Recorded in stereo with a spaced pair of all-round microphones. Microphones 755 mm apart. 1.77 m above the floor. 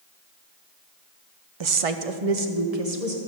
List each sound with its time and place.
1.6 s a woman speaking: 40° right (ahead or behind), 0.6 m; by 3.2 s 55° right (ahead or behind), 1.9 m